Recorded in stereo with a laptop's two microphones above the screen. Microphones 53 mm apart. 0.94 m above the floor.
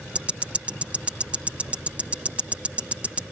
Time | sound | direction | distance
0.1 | ticking | 25° right (ahead or behind) | ?